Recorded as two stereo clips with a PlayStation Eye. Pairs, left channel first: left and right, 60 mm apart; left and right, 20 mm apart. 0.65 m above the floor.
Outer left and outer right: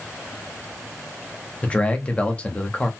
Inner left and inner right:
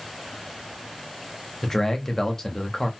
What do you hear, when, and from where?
1.6 s a man speaking: 20° left (ahead or behind), 0.7 m